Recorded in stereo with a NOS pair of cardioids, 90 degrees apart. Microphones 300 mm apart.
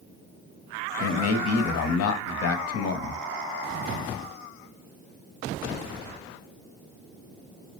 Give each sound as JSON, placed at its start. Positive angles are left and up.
{"t": 1.0, "sound": "a man speaking", "azimuth_deg": 55, "distance_m": 0.7}